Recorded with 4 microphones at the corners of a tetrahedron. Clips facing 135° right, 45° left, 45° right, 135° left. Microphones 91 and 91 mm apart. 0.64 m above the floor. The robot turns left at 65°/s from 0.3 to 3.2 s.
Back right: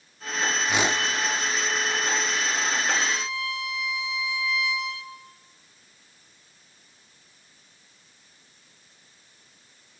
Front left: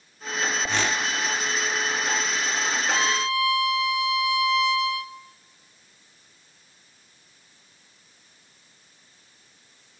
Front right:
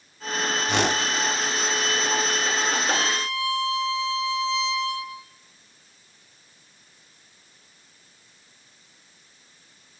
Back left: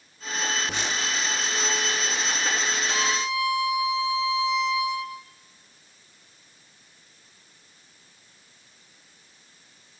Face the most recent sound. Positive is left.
turn(degrees=55)